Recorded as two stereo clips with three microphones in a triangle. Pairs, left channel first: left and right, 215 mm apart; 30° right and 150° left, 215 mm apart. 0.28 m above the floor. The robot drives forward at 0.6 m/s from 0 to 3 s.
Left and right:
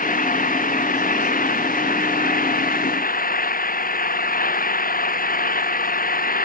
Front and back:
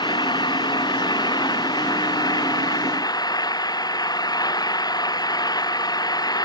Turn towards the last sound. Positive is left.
turn(degrees=40)